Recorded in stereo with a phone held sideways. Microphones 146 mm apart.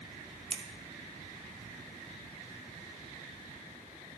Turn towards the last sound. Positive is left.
turn(degrees=-40)  # may be behind; listen again after turning